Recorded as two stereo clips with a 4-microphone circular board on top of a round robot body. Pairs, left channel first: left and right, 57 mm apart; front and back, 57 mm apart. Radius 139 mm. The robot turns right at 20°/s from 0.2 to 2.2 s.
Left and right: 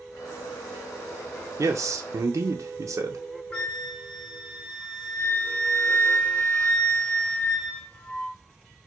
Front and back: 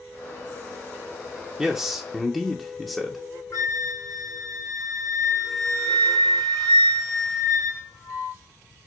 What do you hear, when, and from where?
1.6 s a man speaking: 100° right, 0.6 m; by 3.2 s 90° right, 0.6 m
3.5 s a flute: 20° left, 1.0 m